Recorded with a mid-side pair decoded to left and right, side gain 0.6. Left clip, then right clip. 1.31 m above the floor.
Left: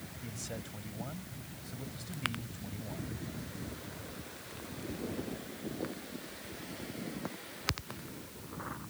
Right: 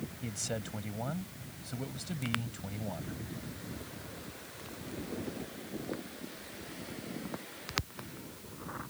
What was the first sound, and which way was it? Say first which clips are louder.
A man speaking: right 6 dB; 35° right.